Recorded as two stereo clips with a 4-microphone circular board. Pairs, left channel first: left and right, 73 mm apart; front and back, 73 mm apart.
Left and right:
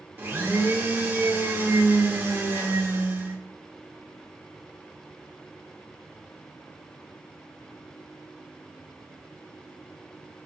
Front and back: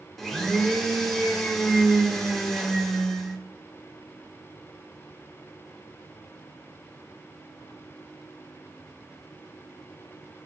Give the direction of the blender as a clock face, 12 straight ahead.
3 o'clock.